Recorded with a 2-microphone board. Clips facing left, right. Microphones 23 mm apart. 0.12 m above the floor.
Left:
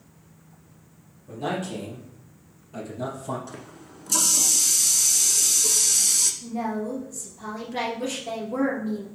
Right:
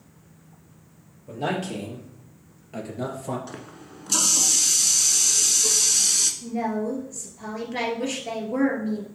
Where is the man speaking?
45° right (ahead or behind), 3.5 m; by 3.4 s 50° right (ahead or behind), 3 m.